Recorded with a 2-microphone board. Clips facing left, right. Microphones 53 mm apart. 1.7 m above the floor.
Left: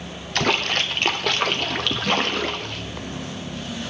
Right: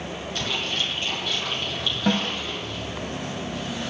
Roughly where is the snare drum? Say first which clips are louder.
Left 1 dB; right.